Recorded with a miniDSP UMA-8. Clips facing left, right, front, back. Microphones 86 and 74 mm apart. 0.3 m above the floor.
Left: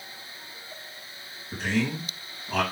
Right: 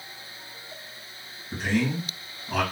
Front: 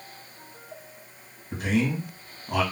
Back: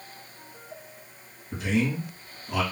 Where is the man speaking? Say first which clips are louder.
Right 2 dB, front 1 dB; 5° right, 2 m.